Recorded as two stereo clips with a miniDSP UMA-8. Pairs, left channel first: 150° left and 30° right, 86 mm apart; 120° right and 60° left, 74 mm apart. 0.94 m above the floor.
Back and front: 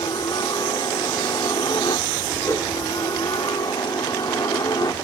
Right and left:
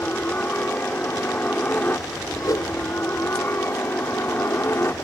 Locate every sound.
0.0 s a helicopter: 175° left; by 5.0 s 175° right
2.4 s a whoosh: 155° right